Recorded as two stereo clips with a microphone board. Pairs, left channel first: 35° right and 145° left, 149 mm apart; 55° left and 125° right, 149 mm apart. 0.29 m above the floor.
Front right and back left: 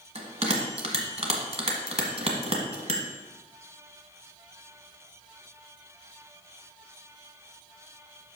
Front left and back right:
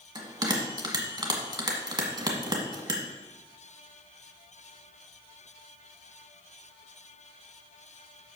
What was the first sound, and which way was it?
A bell, straight behind.